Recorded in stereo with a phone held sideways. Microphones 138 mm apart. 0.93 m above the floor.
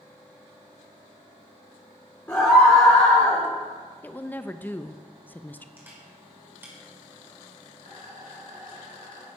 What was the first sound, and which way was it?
A scream, 15° left (ahead or behind).